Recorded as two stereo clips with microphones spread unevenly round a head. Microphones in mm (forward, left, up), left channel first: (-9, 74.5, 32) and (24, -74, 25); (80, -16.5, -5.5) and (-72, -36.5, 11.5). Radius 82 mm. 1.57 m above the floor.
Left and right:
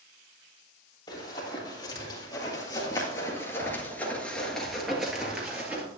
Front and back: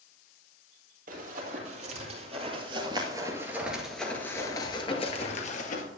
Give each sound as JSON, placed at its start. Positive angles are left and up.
{"t": 1.1, "sound": "running footsteps", "azimuth_deg": 165, "distance_m": 3.0}